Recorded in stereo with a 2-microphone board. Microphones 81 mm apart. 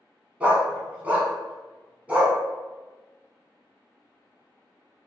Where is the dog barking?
15° right (ahead or behind), 1.1 m.